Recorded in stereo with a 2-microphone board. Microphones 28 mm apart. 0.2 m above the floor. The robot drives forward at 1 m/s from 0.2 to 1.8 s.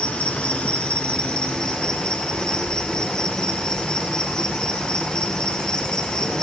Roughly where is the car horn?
I don't hear a car horn.